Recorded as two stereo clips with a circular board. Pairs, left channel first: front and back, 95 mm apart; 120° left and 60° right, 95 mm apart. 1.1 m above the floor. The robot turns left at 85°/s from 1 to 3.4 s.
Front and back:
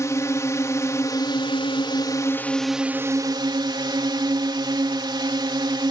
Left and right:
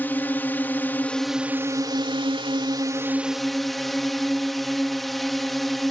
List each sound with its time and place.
0.0 s a drone: 55° left; by 5.9 s 150° right